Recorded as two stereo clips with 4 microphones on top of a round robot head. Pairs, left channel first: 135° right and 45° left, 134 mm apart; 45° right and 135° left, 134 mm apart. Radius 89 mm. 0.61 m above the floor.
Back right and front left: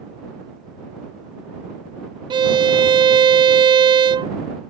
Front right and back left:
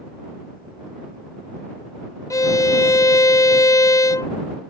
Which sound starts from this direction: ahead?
A violin, at 2.3 s.